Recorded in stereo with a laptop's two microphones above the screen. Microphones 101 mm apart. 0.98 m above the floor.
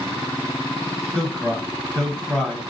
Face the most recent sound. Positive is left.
turn(degrees=5)  # may be behind; listen again after turning